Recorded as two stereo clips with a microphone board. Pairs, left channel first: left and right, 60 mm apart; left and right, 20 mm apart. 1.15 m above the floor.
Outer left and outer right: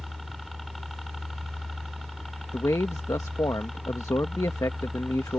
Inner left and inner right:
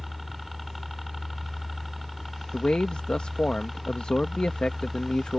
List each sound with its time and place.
0.0 s a helicopter: centre (ahead or behind)
2.5 s a man speaking: 70° left (ahead or behind)